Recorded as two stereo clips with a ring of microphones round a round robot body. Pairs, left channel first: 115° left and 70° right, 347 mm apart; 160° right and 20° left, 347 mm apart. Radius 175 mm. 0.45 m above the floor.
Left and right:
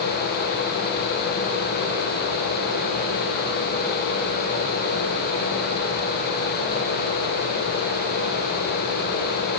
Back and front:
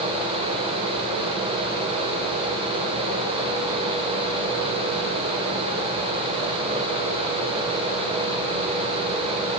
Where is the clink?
No clink in this recording.